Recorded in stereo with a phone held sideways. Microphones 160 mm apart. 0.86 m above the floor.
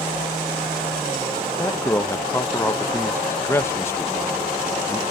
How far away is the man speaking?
About 0.6 m.